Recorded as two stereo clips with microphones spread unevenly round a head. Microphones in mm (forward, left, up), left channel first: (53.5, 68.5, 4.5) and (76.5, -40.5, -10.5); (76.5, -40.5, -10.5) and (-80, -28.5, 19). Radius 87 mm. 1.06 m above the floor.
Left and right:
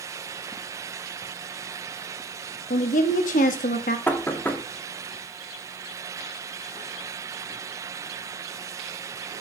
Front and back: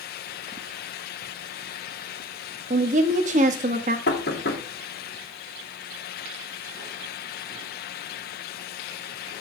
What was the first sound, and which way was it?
A woman speaking, 125° left.